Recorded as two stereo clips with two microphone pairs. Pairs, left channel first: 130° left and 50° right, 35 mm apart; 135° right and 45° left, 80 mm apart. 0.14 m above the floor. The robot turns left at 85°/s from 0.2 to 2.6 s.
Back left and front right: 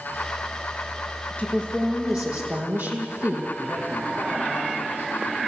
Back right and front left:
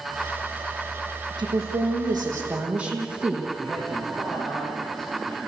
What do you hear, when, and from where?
1.4 s a woman speaking: 75° left, 5.5 m; by 3.5 s 30° right, 5.5 m
3.6 s a man speaking: 50° right, 7.5 m